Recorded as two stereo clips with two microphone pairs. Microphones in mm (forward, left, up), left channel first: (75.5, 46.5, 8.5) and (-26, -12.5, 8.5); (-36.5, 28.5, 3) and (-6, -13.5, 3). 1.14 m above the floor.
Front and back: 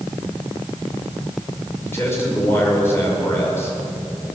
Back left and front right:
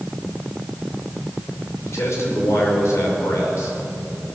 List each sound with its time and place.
1.8 s a man speaking: 100° left, 5 m